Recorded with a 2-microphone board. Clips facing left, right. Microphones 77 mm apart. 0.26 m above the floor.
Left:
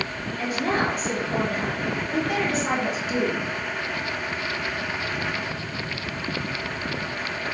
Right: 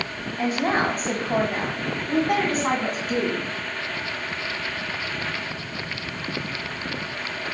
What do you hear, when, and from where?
0.4 s a woman speaking: 30° right (ahead or behind), 1.3 m; by 3.5 s 45° right (ahead or behind), 2.5 m